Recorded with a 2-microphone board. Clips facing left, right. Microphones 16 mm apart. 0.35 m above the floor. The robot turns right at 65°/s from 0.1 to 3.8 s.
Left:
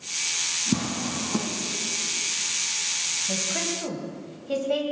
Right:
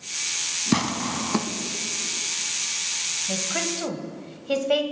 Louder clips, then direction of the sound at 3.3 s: Right 1 dB; 10° right (ahead or behind).